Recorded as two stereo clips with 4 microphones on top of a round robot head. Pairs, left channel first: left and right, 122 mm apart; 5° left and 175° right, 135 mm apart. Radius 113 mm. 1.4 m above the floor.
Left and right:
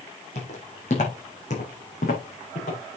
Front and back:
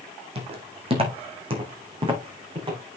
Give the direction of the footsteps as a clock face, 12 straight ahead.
7 o'clock.